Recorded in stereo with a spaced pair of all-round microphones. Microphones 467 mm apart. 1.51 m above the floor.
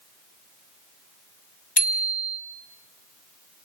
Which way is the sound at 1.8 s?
60° left (ahead or behind).